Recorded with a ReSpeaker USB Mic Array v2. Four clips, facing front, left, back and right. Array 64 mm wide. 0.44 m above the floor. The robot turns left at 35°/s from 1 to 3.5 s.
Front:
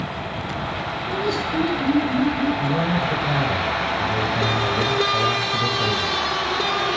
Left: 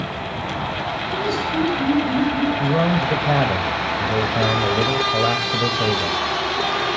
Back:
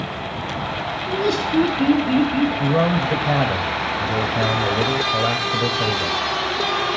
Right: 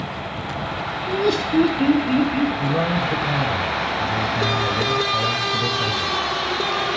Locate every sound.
1.1 s laughter: 120° right, 3.5 m; by 2.5 s 170° right, 3.5 m
2.6 s a man speaking: 145° left, 2 m; by 6.2 s 115° left, 2 m